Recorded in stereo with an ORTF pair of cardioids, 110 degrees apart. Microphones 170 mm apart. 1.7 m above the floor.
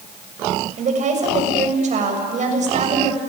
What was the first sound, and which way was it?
A woman speaking, 45° right.